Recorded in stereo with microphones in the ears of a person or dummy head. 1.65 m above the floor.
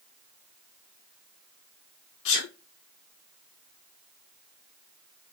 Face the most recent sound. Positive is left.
turn(degrees=60)  # may be behind; listen again after turning